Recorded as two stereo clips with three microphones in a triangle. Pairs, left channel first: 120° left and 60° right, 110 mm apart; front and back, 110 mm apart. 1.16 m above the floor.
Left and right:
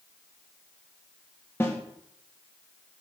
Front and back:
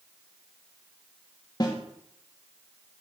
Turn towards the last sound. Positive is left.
turn(degrees=50)